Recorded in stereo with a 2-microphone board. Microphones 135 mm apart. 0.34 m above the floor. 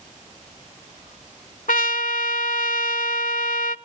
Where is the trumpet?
80° left, 0.6 m.